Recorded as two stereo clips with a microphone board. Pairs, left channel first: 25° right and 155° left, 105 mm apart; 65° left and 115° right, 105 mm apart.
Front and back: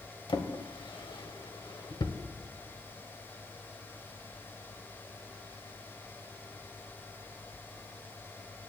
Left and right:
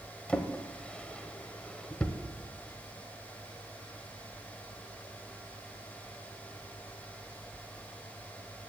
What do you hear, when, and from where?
0.3 s a drawer: 10° right, 0.8 m